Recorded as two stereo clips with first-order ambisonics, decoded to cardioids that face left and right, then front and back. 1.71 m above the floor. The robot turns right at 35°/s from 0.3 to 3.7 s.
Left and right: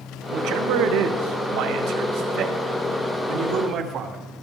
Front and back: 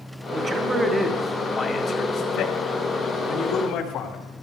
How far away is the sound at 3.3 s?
About 2.5 m.